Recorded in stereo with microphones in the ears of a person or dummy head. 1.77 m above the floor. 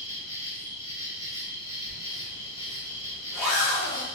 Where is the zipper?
5° left (ahead or behind), 1.2 m.